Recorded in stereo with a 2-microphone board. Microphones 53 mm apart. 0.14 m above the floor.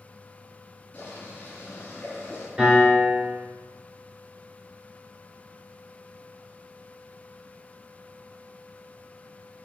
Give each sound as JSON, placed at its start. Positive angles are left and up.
{"t": 0.9, "sound": "boiling", "side_deg": 25, "distance_m": 1.7}
{"t": 2.6, "sound": "a piano", "side_deg": -20, "distance_m": 1.5}